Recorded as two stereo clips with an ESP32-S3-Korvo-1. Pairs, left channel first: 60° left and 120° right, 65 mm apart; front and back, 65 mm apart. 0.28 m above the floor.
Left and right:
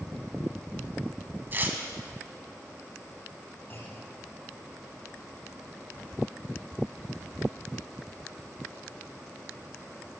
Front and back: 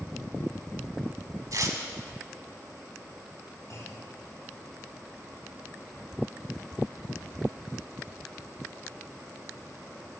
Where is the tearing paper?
175° right, 1.0 m.